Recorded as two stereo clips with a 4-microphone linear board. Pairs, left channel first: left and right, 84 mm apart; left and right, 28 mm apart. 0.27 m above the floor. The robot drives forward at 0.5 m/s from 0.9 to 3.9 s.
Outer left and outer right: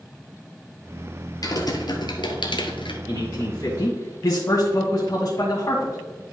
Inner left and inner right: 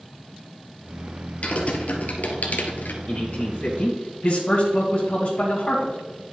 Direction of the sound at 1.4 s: 45° left (ahead or behind).